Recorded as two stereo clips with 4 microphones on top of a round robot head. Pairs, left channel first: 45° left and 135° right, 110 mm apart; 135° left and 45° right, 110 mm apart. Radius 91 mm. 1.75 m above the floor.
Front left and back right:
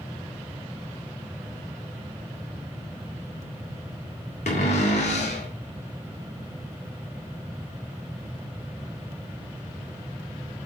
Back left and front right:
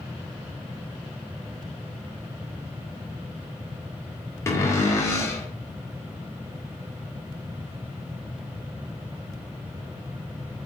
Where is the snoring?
I don't hear snoring.